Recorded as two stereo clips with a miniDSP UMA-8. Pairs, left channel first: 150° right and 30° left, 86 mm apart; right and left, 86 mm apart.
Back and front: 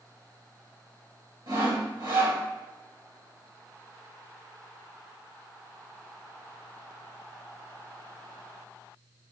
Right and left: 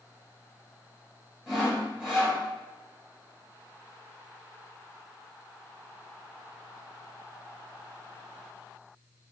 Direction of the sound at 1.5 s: 5° left.